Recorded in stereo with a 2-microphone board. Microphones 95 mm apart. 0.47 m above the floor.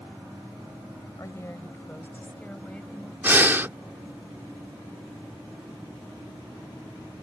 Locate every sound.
1.2 s a woman speaking: 35° left (ahead or behind); by 3.1 s 10° left (ahead or behind)
3.2 s breathing: 20° right (ahead or behind)